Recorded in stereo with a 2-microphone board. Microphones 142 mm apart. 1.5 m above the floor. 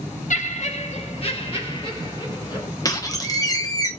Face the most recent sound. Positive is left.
turn(degrees=25)  # may be behind; listen again after turning